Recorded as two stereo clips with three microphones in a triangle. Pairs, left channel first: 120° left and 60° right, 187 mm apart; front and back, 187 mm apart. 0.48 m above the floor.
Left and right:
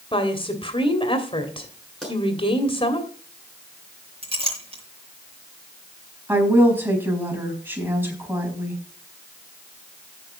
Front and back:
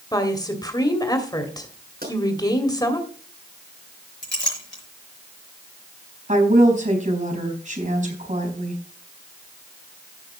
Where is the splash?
No splash in this recording.